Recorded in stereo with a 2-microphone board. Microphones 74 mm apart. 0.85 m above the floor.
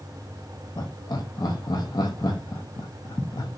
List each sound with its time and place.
0.8 s laughter: 65° left (ahead or behind), 0.6 m